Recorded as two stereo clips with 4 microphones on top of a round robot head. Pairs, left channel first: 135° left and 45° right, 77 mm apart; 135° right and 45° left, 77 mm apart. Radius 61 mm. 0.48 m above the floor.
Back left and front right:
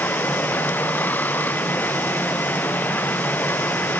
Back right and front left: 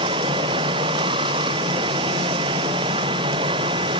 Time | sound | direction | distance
0.0 | running water | 65° left | ?